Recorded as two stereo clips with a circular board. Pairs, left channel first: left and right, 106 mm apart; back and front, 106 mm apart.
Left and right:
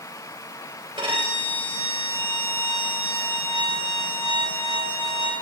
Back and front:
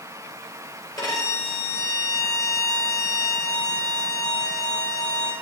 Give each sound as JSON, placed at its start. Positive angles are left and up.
{"t": 1.0, "sound": "a violin", "azimuth_deg": -135, "distance_m": 3.0}